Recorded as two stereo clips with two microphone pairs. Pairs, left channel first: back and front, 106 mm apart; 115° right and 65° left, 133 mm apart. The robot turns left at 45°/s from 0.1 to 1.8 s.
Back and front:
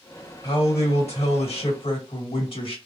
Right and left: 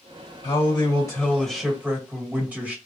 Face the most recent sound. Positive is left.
turn(degrees=150)